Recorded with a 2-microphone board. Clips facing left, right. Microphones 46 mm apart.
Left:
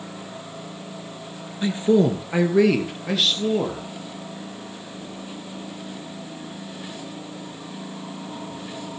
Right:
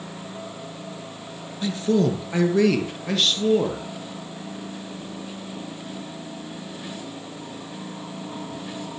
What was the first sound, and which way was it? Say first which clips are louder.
A man speaking: left 3 dB; 25° left (ahead or behind).